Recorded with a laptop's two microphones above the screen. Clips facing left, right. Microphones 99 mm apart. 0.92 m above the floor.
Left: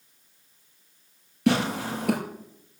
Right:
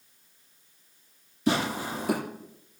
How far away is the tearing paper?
About 5 m.